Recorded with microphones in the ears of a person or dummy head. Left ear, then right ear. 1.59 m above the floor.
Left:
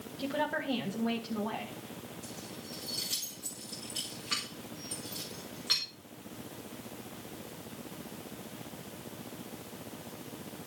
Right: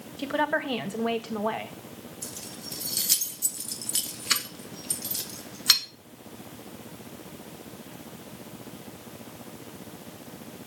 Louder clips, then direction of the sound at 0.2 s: Right 7 dB; 45° right (ahead or behind).